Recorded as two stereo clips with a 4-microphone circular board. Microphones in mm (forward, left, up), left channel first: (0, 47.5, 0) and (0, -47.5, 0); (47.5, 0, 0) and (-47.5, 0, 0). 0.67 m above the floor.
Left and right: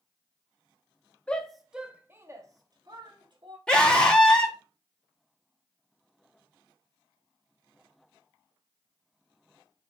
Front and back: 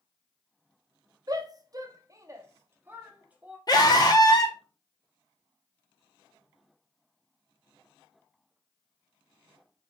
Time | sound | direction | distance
1.3 | a shout | 160° left | 0.7 m
3.7 | a scream | 15° left | 1.1 m